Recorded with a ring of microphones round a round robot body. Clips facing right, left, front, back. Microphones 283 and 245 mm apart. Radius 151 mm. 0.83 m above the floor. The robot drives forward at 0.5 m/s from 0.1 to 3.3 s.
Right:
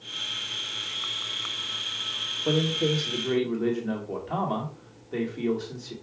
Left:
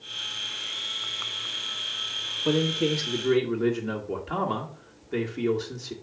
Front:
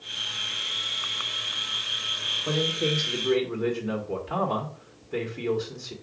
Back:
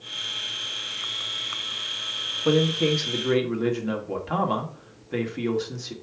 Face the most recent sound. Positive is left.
turn(degrees=165)